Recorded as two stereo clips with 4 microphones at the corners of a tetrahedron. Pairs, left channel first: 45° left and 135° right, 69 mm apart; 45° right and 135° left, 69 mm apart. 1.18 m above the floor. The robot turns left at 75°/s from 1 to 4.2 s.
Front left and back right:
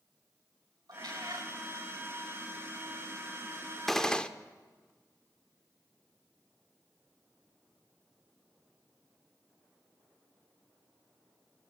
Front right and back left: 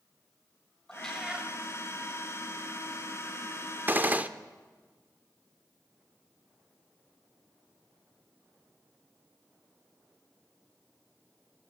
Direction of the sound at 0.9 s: 120° right.